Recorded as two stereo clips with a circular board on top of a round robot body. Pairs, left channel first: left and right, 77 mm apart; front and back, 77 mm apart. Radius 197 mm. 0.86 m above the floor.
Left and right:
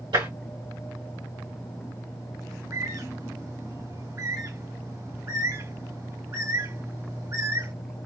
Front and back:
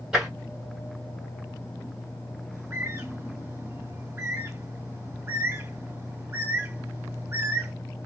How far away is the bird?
About 1.9 m.